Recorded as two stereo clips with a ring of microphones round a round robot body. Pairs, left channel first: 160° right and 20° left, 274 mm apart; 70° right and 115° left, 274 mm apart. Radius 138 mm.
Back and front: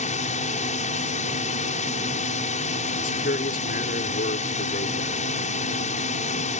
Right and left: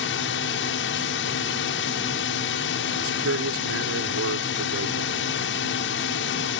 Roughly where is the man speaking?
Behind left.